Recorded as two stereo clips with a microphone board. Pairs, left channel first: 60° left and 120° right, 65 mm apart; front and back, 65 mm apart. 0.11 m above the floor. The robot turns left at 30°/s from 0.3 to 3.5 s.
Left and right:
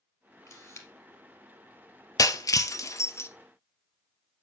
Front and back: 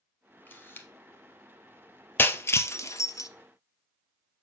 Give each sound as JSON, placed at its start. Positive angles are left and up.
{"t": 0.5, "sound": "a camera shutter", "azimuth_deg": 50, "distance_m": 1.9}
{"t": 2.2, "sound": "breaking glass", "azimuth_deg": 50, "distance_m": 0.5}